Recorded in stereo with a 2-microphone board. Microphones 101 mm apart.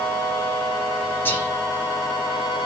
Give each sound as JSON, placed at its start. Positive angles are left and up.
{"t": 1.2, "sound": "whispering", "side_deg": 20, "distance_m": 3.5}